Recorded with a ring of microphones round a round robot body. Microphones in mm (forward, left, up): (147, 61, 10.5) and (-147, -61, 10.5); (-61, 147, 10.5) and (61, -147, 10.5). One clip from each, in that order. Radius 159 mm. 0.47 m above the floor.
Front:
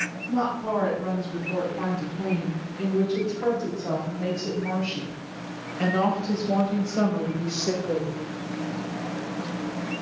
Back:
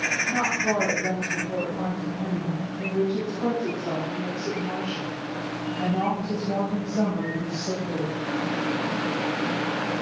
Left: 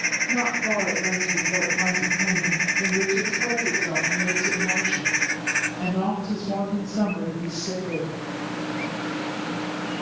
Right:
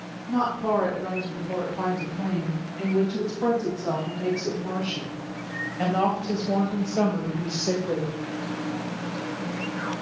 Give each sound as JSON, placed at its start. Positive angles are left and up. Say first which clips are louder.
{"t": 0.3, "sound": "a woman speaking", "louder": "back 3 dB, left 2 dB", "azimuth_deg": -75, "distance_m": 5.0}